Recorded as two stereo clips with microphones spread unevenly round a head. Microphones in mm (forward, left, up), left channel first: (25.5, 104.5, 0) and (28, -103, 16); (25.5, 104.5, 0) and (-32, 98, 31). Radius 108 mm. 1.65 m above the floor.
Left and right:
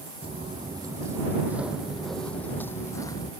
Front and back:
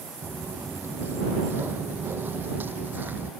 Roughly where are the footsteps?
Behind right.